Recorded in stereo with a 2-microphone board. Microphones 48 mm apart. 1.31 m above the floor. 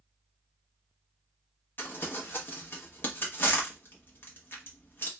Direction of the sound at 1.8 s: 45° left (ahead or behind).